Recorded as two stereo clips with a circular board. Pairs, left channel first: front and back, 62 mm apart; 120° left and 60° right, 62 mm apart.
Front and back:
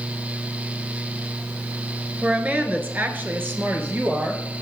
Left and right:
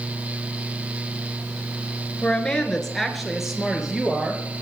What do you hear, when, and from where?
2.2 s a woman speaking: 155° left, 1.2 m; by 4.4 s 135° right, 1.9 m